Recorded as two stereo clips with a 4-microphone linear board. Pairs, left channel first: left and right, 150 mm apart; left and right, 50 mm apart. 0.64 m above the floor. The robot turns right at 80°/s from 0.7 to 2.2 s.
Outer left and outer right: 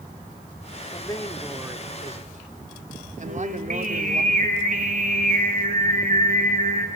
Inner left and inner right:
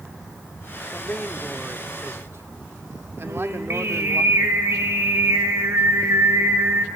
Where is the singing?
65° right (ahead or behind), 2.5 m.